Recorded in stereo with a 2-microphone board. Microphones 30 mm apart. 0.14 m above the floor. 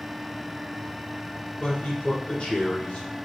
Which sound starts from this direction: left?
A man speaking, at 1.6 s.